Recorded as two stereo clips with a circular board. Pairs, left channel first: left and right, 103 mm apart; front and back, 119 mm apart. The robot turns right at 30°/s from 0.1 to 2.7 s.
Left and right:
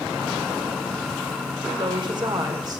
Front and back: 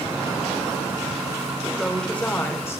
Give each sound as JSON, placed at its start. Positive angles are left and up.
{"t": 1.7, "sound": "a woman speaking", "azimuth_deg": -90, "distance_m": 1.4}